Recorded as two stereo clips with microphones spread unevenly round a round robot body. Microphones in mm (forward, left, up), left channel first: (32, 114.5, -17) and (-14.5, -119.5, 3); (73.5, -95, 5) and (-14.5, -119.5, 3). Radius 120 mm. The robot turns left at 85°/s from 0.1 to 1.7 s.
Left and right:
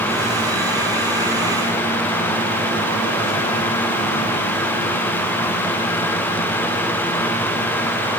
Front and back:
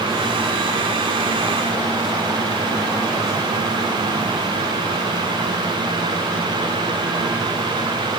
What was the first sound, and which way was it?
Only background noise.